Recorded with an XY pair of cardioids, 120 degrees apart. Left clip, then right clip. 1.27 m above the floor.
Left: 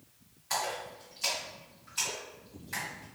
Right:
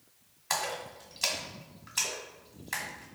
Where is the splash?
60° right, 1.1 m.